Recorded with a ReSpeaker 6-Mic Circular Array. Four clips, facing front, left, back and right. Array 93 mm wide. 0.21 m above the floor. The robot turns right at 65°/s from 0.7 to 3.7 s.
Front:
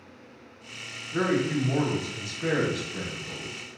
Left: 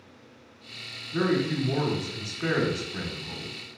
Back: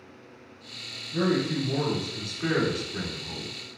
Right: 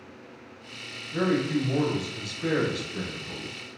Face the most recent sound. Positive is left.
turn(degrees=160)